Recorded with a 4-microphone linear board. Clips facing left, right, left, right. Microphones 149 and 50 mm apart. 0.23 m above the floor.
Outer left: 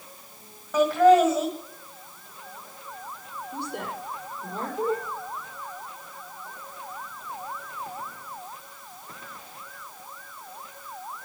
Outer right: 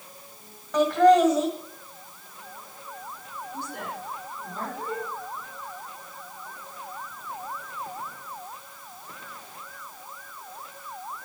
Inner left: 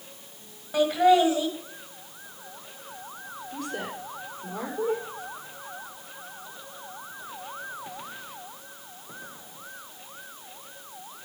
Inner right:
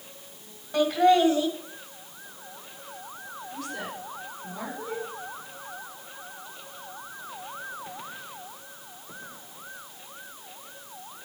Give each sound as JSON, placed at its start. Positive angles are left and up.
{"t": 0.7, "sound": "laughter", "side_deg": 5, "distance_m": 1.7}
{"t": 3.5, "sound": "a woman speaking", "side_deg": 75, "distance_m": 6.0}